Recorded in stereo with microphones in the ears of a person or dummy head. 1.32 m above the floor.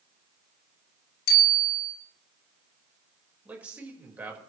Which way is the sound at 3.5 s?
10° right (ahead or behind).